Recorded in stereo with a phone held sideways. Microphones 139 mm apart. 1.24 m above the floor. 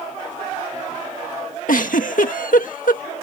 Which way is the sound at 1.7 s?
75° left (ahead or behind).